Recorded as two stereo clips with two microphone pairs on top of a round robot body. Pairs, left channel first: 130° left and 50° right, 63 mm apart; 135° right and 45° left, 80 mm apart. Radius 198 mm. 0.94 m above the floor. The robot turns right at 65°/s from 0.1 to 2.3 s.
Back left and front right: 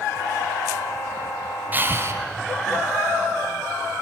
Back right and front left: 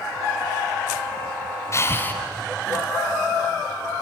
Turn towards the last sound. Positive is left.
turn(degrees=-75)